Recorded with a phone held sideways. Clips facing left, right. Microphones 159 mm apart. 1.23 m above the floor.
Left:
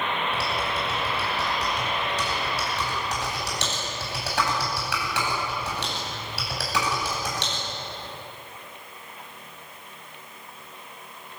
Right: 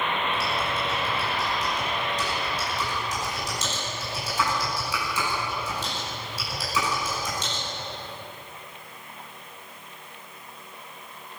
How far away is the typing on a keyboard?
About 10 m.